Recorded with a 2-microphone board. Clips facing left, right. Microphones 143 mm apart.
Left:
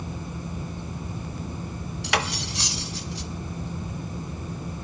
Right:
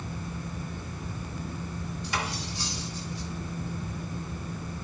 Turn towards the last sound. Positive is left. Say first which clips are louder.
# left 7 dB
turn(degrees=80)